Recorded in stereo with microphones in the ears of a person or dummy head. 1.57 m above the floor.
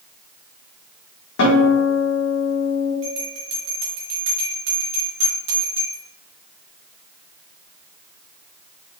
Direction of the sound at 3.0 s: 65° right (ahead or behind).